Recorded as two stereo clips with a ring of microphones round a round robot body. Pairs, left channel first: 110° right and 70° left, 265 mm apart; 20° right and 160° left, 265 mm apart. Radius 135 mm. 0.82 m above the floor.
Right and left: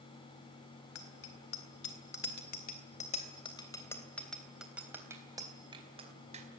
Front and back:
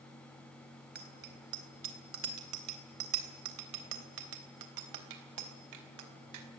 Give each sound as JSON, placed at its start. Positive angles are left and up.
{"t": 0.9, "sound": "a bicycle bell", "azimuth_deg": -145, "distance_m": 4.0}